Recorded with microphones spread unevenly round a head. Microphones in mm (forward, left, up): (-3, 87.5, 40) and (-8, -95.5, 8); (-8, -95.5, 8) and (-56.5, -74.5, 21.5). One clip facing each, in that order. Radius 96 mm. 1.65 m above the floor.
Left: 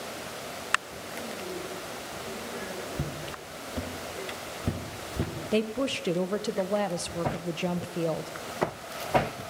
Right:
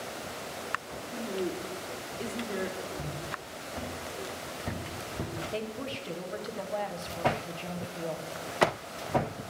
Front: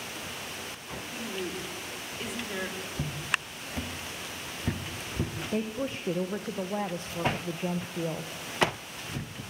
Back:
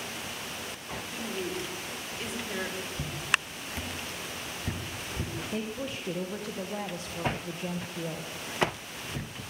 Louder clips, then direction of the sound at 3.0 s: Left 2 dB, back 2 dB; 50° left.